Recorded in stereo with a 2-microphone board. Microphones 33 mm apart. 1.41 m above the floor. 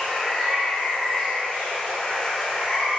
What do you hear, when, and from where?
0.0 s running water: 10° left (ahead or behind), 1.1 m